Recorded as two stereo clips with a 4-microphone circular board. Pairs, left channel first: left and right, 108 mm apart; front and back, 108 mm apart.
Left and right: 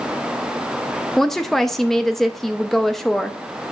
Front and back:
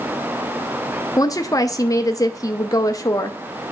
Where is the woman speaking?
5° left, 0.6 m.